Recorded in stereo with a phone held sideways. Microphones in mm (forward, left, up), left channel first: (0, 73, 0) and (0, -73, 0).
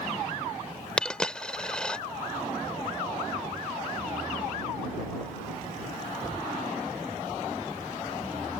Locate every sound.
1.0 s a dropped coin: 5° left (ahead or behind)